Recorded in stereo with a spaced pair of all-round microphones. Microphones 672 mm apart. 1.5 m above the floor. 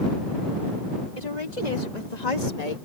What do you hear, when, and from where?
1.2 s a woman speaking: 80° left; by 2.8 s 65° left (ahead or behind)